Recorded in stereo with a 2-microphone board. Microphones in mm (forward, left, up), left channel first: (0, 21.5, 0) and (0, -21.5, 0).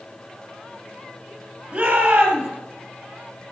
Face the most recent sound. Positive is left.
turn(degrees=-30)  # may be behind; listen again after turning